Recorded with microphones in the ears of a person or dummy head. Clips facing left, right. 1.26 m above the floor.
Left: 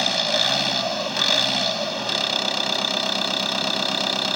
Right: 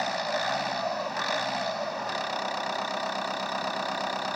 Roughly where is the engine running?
Left.